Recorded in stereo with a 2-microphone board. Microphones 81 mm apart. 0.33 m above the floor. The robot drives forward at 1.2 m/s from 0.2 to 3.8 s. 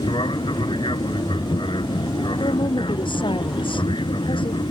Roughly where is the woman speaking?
Left.